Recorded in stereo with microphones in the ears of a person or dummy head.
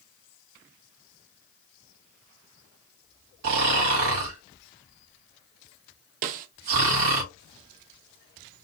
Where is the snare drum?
40° right (ahead or behind), 0.6 m.